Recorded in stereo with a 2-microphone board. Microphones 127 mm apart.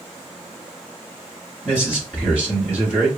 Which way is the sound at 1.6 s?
10° right (ahead or behind).